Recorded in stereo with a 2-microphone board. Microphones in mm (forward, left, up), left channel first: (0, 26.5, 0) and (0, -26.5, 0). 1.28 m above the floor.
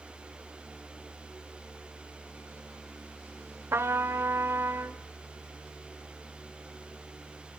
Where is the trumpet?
55° right (ahead or behind), 1.5 m.